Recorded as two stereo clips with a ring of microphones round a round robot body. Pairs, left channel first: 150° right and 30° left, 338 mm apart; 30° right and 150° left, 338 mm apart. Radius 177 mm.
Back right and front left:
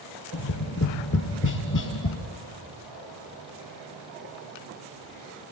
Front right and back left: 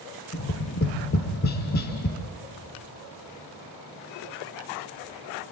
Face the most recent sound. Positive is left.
turn(degrees=-95)